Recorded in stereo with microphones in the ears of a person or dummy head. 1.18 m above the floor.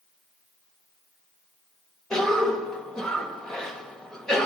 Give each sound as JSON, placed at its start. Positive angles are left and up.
{"t": 2.1, "sound": "a cough", "side_deg": 5, "distance_m": 1.6}